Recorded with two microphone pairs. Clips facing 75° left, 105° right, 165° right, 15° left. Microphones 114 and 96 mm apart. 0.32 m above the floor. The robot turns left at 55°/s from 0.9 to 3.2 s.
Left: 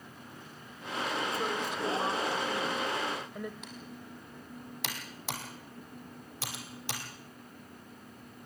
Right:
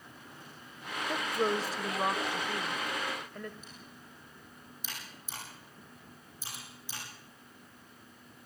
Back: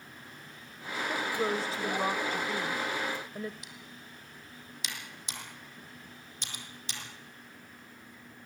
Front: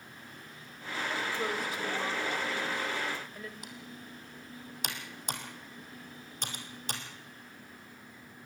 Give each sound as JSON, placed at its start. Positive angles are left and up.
{"t": 1.1, "sound": "a woman speaking", "azimuth_deg": -95, "distance_m": 1.0}
{"t": 3.6, "sound": "typing on a keyboard", "azimuth_deg": 55, "distance_m": 3.5}